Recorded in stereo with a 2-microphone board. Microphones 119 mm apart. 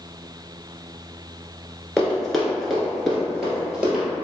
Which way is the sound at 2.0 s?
5° left (ahead or behind).